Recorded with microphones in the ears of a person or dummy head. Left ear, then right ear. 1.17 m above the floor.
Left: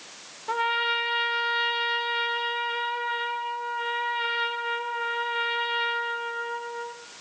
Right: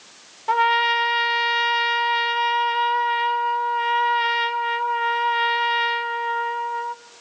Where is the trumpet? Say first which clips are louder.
Right 7 dB; 25° right (ahead or behind), 0.8 m.